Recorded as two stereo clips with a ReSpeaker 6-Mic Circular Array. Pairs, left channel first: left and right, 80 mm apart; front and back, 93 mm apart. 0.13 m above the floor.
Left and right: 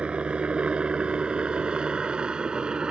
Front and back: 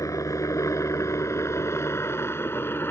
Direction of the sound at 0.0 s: 20° right.